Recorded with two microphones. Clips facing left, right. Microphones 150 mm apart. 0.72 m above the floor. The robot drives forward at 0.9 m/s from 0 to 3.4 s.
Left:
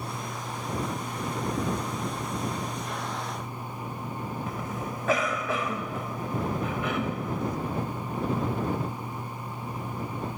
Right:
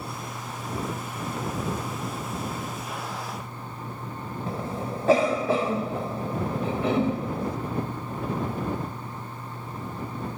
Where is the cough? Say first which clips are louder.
Right 3 dB; 30° right (ahead or behind).